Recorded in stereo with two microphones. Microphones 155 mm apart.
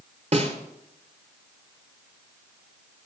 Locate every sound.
0.3 s a snare drum: 45° right (ahead or behind), 1.2 m